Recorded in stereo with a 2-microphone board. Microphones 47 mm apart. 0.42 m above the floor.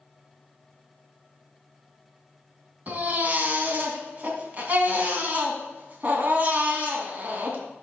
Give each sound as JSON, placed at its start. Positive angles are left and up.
{"t": 2.9, "sound": "a baby crying", "side_deg": -35, "distance_m": 2.0}